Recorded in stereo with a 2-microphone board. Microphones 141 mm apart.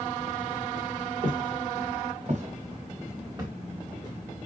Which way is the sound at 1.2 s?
75° right (ahead or behind).